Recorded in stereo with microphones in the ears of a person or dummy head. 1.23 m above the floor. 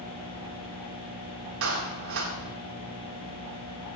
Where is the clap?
85° right, 2.5 m.